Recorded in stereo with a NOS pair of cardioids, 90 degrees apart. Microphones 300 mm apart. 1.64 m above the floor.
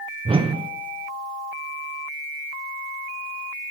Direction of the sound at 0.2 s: 20° right.